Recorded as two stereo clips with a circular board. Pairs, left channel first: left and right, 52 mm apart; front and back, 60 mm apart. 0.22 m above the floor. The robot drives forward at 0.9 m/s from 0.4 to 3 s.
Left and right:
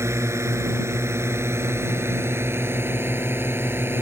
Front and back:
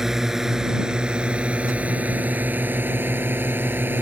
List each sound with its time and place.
0.0 s a drone: 95° right; by 4.0 s 125° right